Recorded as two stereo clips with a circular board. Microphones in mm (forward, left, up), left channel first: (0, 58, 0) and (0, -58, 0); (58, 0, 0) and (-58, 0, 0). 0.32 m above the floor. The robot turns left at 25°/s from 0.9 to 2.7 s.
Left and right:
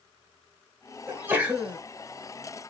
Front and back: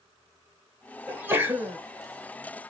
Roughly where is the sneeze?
Behind right.